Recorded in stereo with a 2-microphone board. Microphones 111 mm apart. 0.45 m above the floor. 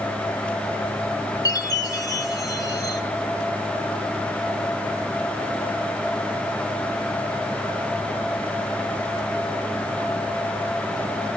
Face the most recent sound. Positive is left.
turn(degrees=35)  # may be behind; listen again after turning